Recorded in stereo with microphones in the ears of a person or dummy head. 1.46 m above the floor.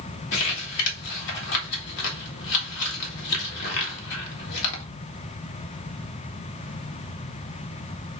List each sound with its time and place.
0.3 s crumpling: 60° left (ahead or behind), 1.3 m